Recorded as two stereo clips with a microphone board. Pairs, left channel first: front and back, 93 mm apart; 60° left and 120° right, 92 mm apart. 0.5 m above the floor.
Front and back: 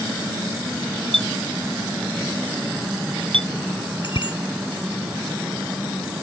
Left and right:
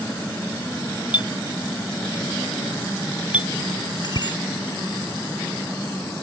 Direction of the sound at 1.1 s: 165° left.